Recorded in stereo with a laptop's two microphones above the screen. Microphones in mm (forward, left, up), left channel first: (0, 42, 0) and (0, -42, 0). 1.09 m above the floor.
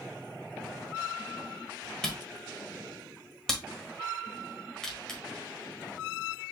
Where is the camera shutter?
10° left (ahead or behind), 1.5 m.